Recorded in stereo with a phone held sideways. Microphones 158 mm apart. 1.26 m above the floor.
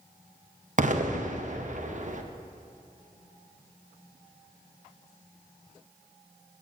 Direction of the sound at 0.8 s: 50° right (ahead or behind).